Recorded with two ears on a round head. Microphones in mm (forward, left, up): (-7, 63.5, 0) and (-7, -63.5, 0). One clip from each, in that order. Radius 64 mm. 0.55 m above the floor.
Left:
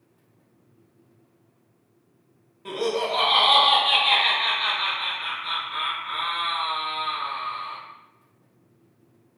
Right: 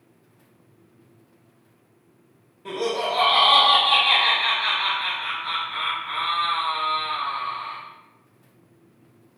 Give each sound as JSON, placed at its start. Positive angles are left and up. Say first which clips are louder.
{"t": 2.6, "sound": "laughter", "louder": "even", "side_deg": 15, "distance_m": 0.6}